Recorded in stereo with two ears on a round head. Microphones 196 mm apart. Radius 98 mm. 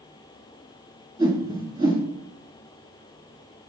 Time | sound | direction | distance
1.2 | a whoosh | 20° right (ahead or behind) | 1.2 m